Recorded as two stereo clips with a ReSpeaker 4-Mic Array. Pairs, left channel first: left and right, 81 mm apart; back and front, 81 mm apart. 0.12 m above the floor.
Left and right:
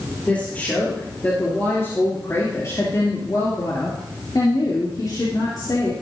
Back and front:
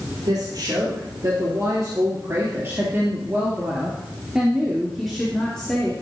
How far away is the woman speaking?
About 3.5 m.